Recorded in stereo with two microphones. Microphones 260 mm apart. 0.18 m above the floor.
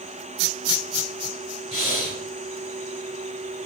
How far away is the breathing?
About 2 m.